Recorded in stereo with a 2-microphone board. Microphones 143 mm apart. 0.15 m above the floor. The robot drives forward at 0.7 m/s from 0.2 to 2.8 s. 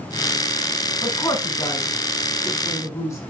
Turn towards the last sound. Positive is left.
turn(degrees=20)  # may be behind; listen again after turning